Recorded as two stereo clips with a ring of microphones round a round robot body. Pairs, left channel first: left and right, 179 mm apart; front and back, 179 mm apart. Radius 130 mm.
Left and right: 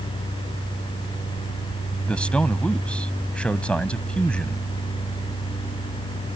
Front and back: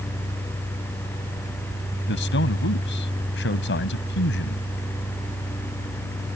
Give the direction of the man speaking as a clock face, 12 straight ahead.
12 o'clock.